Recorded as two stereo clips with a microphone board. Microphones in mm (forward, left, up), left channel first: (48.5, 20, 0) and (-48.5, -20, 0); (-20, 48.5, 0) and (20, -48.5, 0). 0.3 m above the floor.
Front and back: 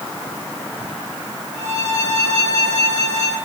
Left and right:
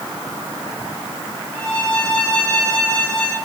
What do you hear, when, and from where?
1.5 s a violin: 170° right, 3.5 m